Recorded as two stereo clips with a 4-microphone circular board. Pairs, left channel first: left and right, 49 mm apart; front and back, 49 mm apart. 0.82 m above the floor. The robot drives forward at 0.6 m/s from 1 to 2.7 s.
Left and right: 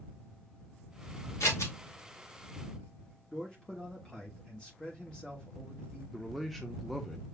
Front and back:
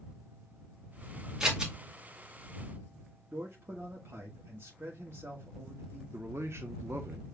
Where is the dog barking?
I don't hear a dog barking.